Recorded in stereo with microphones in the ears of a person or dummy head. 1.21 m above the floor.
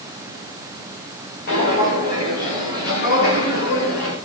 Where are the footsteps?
50° left (ahead or behind), 7.5 m; by 4.2 s 55° left (ahead or behind), 6 m.